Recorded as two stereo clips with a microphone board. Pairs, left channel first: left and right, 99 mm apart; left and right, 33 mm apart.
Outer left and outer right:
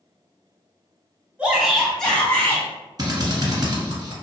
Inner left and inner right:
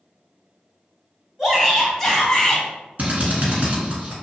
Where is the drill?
45° right (ahead or behind), 0.9 m.